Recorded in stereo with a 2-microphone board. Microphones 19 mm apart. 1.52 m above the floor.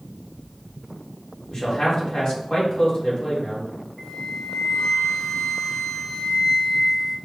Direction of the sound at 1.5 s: 40° left (ahead or behind).